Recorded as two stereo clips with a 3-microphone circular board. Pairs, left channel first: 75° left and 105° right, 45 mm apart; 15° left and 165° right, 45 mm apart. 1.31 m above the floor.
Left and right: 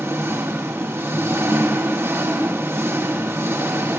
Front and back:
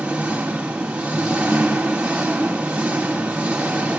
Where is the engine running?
100° right, 4 m.